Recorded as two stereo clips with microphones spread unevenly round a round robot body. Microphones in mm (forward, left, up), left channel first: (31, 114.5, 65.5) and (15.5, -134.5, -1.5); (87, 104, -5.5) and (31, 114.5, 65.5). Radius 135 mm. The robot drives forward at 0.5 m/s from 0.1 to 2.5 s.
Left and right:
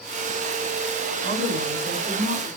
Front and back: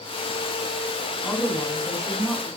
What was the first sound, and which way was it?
A woman speaking, 50° right.